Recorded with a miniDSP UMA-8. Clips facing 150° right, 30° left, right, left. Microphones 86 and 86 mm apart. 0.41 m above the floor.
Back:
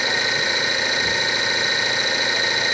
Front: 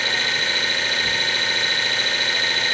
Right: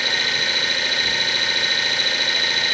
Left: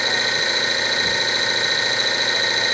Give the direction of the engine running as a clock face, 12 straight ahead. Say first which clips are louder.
Back 2 dB, left 2 dB; 7 o'clock.